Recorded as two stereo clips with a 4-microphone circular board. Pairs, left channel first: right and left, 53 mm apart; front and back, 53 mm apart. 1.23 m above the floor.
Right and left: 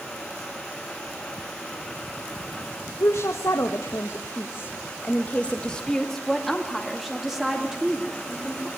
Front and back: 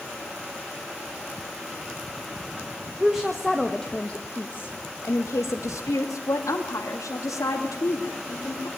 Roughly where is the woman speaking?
Right.